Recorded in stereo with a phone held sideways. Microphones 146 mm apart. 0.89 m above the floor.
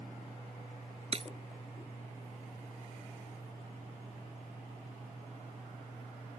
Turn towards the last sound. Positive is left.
turn(degrees=-45)  # may be behind; listen again after turning